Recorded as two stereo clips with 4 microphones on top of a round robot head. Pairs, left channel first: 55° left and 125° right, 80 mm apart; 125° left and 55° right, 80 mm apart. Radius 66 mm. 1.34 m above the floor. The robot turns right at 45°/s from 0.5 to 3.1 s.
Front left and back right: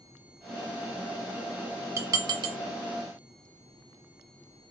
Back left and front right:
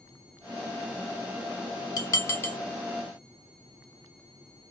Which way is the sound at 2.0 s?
175° left.